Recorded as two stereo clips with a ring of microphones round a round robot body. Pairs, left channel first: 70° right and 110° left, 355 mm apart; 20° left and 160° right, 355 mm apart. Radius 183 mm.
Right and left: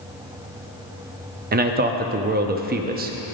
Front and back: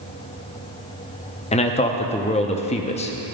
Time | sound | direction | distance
1.5 | a man speaking | 75° left | 0.7 m